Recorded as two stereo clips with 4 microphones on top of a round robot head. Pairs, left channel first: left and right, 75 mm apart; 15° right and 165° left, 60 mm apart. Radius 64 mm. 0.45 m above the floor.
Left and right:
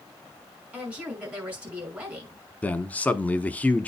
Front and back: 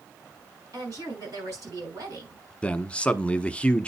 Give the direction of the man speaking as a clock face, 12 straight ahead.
11 o'clock.